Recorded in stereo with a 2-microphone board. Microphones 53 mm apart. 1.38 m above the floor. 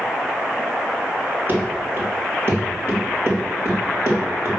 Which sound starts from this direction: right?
Running footsteps, at 1.5 s.